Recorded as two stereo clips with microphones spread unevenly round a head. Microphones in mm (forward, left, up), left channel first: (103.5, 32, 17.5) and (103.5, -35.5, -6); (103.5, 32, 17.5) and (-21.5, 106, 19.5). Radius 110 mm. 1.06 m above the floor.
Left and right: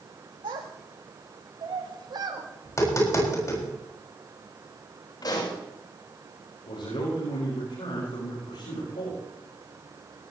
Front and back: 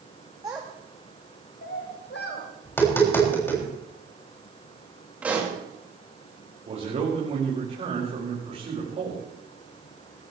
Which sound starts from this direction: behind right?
A child speaking, at 0.4 s.